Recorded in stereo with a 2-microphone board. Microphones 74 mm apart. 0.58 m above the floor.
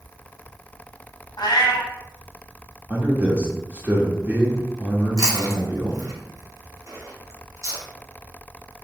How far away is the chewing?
About 1.1 m.